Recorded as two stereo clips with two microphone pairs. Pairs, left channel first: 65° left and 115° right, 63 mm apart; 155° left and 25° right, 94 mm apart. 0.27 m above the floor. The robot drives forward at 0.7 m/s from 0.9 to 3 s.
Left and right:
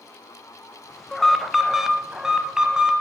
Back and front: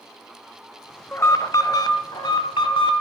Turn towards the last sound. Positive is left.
turn(degrees=175)